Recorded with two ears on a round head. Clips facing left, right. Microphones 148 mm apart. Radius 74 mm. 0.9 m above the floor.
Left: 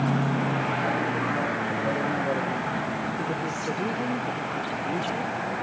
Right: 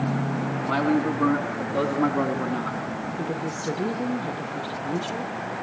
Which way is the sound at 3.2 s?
15° right (ahead or behind).